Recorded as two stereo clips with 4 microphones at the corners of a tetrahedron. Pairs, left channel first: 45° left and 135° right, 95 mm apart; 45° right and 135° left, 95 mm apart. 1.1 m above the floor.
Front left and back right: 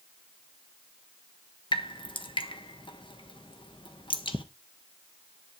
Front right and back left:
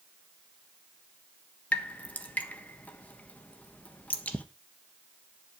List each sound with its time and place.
1.7 s dripping: 25° left, 1.3 m